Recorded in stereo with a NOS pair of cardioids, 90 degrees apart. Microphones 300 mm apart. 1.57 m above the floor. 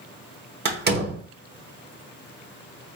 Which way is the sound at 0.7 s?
35° right.